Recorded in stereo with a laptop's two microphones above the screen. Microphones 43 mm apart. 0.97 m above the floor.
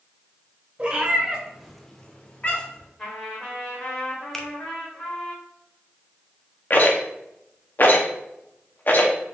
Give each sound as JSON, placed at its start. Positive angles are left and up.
{"t": 0.8, "sound": "a cat meowing", "side_deg": -30, "distance_m": 1.0}
{"t": 3.0, "sound": "a trumpet", "side_deg": 20, "distance_m": 2.0}
{"t": 4.3, "sound": "a finger snap", "side_deg": 10, "distance_m": 0.7}
{"t": 6.7, "sound": "a rattle", "side_deg": 45, "distance_m": 0.7}